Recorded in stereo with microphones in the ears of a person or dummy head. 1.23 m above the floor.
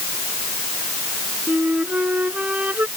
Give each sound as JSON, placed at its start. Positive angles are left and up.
{"t": 1.5, "sound": "a flute", "side_deg": -10}